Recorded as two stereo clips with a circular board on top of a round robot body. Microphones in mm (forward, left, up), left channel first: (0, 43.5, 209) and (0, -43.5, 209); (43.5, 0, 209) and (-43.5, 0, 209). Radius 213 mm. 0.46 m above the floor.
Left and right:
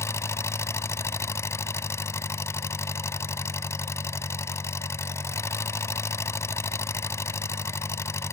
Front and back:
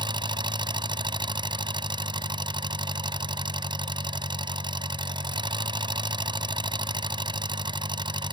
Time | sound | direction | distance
0.0 | an engine running | 150° left | ?